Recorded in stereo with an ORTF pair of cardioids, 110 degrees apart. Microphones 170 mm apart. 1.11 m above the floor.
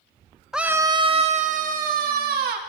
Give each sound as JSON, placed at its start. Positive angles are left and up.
{"t": 0.5, "sound": "a scream", "azimuth_deg": 0, "distance_m": 0.6}